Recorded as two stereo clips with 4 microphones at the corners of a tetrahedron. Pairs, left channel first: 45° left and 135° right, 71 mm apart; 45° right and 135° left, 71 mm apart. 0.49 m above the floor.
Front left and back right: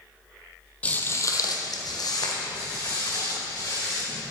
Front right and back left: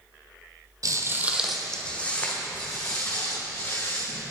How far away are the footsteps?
About 0.8 m.